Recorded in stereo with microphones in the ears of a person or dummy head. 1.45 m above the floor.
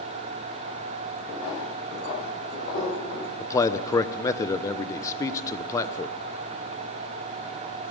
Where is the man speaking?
30° left (ahead or behind), 0.9 m.